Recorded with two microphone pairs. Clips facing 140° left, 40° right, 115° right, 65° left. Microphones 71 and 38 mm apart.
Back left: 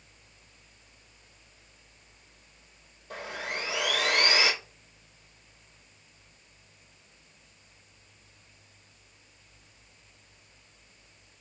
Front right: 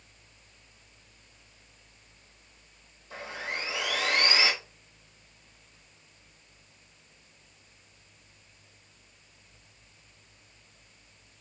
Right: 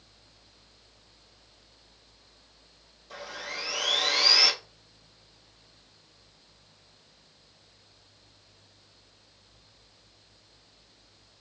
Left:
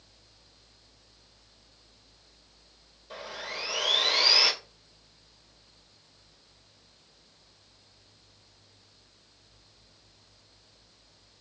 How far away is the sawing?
About 1.2 m.